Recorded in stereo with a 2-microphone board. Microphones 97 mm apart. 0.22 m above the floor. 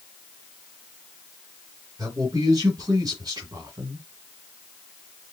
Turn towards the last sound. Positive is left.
turn(degrees=-40)  # may be behind; listen again after turning